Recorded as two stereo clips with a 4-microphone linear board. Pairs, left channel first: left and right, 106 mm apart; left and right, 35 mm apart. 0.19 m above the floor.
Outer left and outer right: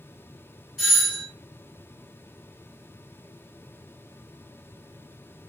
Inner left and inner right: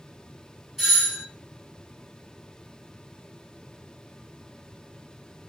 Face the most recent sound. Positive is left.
turn(degrees=0)  # may be behind; listen again after turning